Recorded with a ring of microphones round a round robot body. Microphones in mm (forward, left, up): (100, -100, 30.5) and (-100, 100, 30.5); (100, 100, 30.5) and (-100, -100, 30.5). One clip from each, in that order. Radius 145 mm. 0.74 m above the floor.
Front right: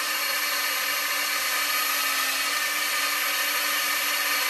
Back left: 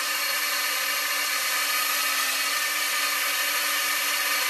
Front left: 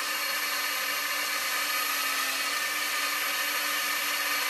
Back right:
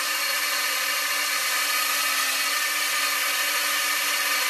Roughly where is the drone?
Behind.